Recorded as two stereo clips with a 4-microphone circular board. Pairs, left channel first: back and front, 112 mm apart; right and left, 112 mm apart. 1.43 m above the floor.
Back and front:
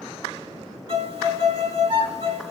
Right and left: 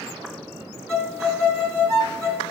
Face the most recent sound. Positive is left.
turn(degrees=25)